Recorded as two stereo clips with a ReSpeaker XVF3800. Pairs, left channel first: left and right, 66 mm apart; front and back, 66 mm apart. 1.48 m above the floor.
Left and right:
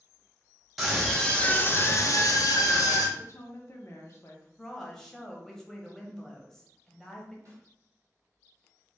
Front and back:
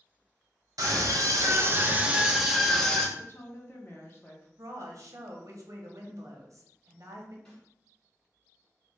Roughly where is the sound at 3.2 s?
Ahead left.